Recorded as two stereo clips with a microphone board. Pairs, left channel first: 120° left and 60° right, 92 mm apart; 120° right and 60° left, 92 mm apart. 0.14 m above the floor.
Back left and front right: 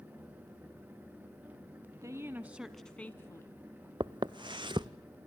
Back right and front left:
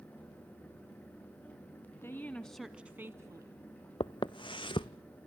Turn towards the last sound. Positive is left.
turn(degrees=-90)